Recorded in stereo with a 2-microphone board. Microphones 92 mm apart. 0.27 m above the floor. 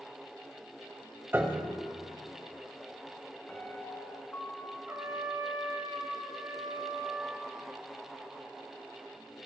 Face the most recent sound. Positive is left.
turn(degrees=-30)  # may be behind; listen again after turning